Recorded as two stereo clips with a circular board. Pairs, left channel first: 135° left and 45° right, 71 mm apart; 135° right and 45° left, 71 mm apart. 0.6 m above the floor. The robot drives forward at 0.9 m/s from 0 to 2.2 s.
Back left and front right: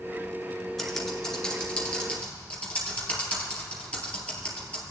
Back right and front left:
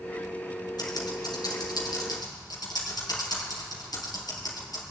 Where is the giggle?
No giggle in this recording.